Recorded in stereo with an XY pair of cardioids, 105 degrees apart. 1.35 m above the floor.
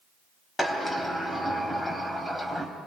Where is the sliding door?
15° left, 3.5 m.